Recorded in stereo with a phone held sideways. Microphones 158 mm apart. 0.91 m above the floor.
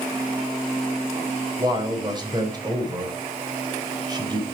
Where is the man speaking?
25° right (ahead or behind), 3.5 m.